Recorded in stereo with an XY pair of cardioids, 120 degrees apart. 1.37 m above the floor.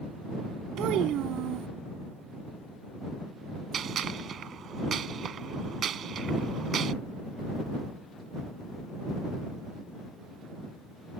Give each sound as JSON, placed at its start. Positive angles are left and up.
{"t": 0.8, "sound": "a child speaking", "azimuth_deg": -70}
{"t": 3.7, "sound": "a gunshot", "azimuth_deg": -50}